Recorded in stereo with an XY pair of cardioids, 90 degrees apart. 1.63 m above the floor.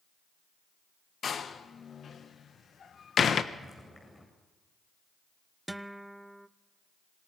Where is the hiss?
I don't hear a hiss.